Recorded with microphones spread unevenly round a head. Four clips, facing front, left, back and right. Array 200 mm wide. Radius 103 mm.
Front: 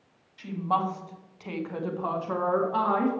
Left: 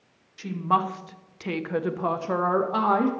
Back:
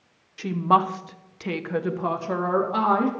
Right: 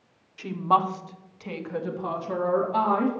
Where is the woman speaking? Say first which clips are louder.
Right 2 dB, back 7 dB; straight behind, 1.1 m; by 3.1 s 90° left, 1.9 m.